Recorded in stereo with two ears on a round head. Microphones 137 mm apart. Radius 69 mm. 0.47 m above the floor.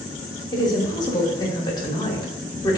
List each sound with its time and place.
0.5 s a woman speaking: 25° left (ahead or behind), 1.0 m